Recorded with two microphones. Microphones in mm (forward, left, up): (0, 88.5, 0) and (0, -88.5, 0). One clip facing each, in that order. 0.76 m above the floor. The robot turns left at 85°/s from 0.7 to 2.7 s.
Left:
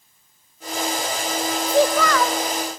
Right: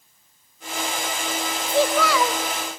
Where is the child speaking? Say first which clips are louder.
Left 2 dB; 25° left, 0.7 m; by 2.4 s 35° right, 0.7 m.